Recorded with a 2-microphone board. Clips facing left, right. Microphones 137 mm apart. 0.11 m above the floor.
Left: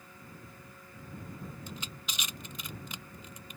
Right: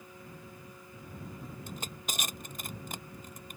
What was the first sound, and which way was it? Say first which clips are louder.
Crushing: right 3 dB; 50° right (ahead or behind).